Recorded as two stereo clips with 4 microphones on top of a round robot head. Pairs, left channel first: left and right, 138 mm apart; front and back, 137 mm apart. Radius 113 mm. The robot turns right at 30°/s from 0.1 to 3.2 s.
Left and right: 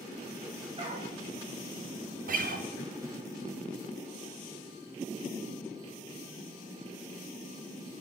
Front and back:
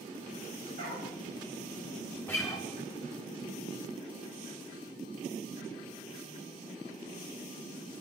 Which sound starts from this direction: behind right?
A dog barking, at 0.8 s.